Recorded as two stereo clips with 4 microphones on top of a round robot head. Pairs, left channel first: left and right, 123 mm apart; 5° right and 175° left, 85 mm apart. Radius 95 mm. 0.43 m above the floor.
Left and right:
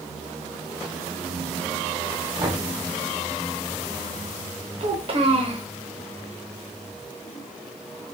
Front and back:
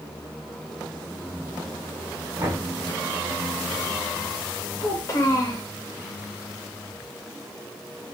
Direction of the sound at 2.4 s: 140° right.